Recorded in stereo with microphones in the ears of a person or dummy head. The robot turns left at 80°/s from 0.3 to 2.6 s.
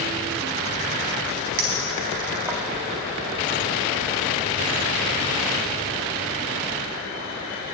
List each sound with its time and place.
1.6 s a clink: 40° right (ahead or behind), 1.1 m; by 2.6 s 5° right (ahead or behind), 1.1 m